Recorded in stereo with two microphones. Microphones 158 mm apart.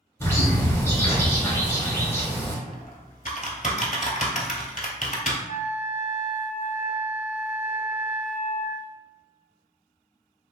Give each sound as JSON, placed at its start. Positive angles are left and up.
{"t": 0.2, "sound": "a bird", "side_deg": 15, "distance_m": 2.0}
{"t": 2.7, "sound": "typing on a keyboard", "side_deg": 55, "distance_m": 0.7}
{"t": 5.5, "sound": "a flute", "side_deg": -40, "distance_m": 1.5}